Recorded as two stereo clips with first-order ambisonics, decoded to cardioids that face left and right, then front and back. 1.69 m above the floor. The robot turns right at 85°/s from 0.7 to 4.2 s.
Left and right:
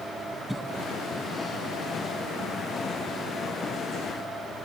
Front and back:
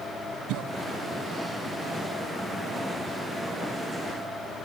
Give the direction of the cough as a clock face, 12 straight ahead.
6 o'clock.